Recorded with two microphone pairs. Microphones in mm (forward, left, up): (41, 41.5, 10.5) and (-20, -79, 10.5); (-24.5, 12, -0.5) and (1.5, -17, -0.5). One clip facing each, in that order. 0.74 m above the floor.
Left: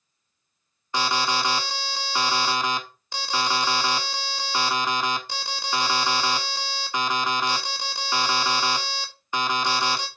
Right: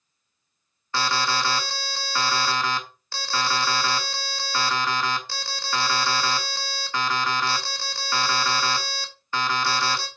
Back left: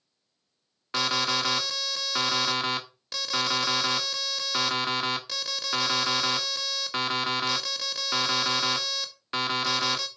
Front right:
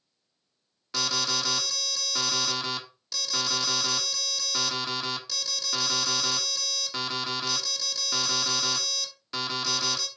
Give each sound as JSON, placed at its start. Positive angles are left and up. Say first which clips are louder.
{"t": 0.9, "sound": "an alarm", "louder": "left 1 dB, back left 3 dB", "azimuth_deg": 125, "distance_m": 1.2}